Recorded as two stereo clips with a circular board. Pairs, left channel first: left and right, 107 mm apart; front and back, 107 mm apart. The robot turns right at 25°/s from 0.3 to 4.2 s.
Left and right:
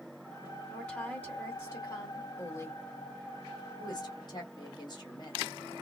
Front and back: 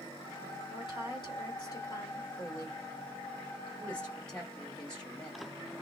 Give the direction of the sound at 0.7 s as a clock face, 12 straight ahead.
12 o'clock.